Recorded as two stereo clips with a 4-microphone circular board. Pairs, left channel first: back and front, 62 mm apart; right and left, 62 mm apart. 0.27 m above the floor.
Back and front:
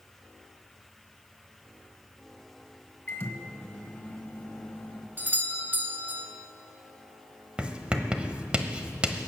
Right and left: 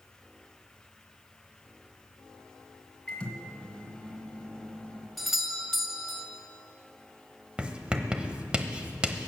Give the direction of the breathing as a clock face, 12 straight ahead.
No breathing in this recording.